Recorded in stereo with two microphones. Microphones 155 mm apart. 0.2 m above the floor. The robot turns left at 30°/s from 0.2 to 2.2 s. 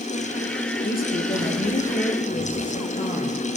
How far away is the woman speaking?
About 4 m.